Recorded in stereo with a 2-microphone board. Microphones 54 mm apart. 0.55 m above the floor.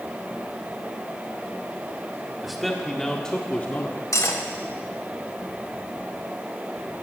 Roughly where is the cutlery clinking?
Left.